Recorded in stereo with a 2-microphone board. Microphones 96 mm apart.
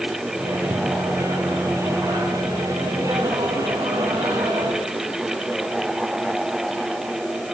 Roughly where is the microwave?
Right.